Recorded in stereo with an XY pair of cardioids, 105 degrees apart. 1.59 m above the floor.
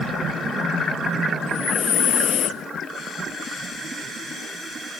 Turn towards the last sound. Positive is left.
turn(degrees=65)